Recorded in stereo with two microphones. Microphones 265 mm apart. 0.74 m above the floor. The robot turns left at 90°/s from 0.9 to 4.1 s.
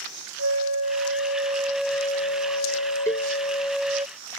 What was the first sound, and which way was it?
A flute, 100° right.